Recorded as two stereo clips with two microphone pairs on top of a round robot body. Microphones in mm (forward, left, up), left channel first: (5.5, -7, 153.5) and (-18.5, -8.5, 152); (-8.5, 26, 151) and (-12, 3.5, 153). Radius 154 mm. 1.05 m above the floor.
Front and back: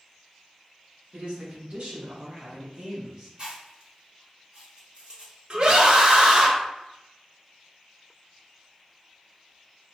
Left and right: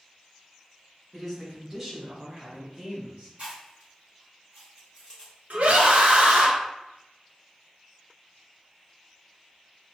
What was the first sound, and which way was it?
A man speaking, straight behind.